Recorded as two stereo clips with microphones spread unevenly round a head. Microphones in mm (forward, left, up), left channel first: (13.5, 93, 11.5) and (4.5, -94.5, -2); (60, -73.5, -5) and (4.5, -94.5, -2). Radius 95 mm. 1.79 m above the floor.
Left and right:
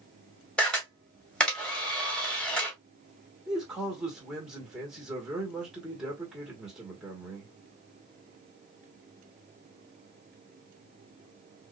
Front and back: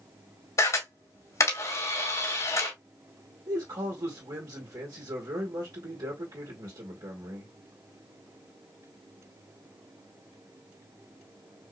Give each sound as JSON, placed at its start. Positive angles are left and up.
{"t": 0.6, "sound": "a camera shutter", "azimuth_deg": 5, "distance_m": 2.5}
{"t": 3.5, "sound": "a man speaking", "azimuth_deg": 180, "distance_m": 1.9}